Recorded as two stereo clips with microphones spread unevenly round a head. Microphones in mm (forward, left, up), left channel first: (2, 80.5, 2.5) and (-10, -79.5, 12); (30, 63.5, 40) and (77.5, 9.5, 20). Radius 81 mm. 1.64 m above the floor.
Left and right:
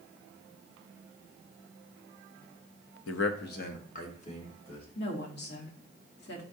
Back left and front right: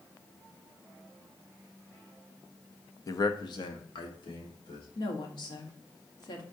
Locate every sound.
3.1 s a man speaking: 95° left, 0.5 m; by 4.8 s 140° left, 1.6 m
5.0 s a woman speaking: 110° left, 1.2 m